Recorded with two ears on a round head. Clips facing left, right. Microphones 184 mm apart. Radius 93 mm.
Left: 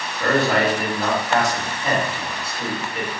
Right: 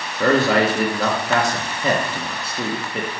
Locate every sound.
0.2 s a man speaking: 65° right (ahead or behind), 1.6 m